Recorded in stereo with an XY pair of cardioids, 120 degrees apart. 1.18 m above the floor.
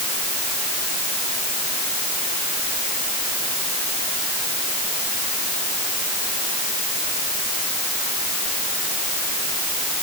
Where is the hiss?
No hiss in this recording.